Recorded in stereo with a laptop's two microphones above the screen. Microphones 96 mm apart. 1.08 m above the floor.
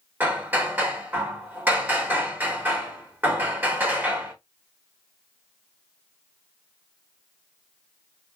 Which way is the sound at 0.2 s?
20° right (ahead or behind).